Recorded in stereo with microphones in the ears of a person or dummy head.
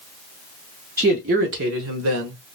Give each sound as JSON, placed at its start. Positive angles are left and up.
{"t": 1.0, "sound": "a man speaking", "side_deg": -10, "distance_m": 0.6}